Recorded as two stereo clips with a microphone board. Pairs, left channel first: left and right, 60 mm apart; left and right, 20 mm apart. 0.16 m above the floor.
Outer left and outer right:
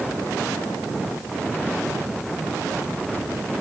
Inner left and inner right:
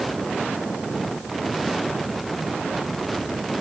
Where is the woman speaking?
No woman speaking in this recording.